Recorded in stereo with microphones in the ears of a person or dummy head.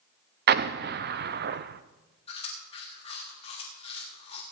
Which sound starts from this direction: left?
Chewing, at 2.3 s.